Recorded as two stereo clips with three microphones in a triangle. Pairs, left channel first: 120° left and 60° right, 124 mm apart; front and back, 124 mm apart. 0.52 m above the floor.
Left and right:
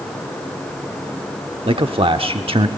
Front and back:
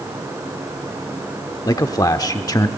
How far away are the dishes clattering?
I don't hear dishes clattering.